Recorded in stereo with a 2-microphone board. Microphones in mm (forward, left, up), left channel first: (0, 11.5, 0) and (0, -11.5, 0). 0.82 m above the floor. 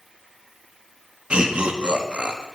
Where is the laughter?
50° right (ahead or behind), 0.8 m.